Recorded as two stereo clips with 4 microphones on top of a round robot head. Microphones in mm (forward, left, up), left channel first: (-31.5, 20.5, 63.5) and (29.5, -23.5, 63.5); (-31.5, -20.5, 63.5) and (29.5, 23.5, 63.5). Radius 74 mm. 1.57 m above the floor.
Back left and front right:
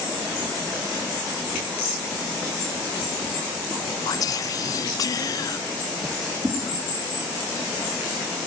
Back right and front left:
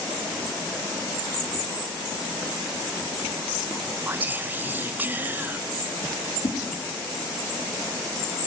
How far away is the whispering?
About 0.9 m.